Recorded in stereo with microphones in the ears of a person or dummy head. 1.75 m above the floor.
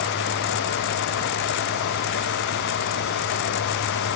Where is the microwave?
No microwave in this recording.